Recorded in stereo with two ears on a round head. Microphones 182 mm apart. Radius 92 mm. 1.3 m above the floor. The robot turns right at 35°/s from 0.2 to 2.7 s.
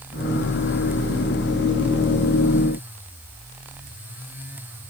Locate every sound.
Only background noise.